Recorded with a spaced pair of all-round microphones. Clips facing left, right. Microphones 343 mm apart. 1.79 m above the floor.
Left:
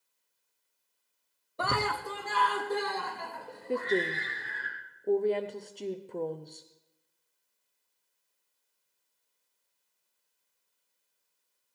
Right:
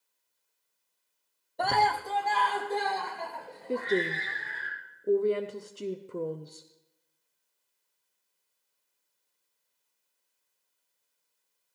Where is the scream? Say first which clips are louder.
Right 3 dB; 10° left (ahead or behind), 0.6 m; by 4.7 s 20° left (ahead or behind), 4.5 m.